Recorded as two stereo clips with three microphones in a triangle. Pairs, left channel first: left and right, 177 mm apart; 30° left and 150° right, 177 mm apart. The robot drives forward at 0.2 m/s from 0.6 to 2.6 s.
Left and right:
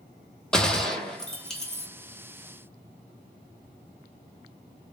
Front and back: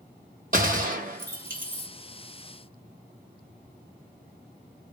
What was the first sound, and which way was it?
A gunshot, 175° left.